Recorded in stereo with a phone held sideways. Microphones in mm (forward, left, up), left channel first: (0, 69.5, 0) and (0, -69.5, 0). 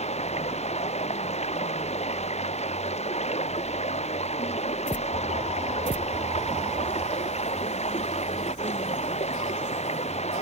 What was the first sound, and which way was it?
Running water, 50° left (ahead or behind).